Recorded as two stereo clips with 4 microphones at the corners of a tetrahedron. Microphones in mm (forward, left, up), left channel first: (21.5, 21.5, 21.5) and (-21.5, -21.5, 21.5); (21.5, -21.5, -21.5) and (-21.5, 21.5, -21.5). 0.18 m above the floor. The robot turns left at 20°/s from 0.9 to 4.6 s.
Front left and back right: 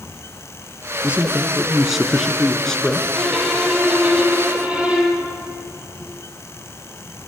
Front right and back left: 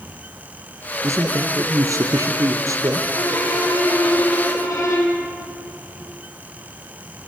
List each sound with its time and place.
1.0 s a man speaking: 160° left, 2 m; by 3.0 s 120° left, 2 m
3.1 s a violin: 40° right, 6 m; by 5.2 s 70° right, 6 m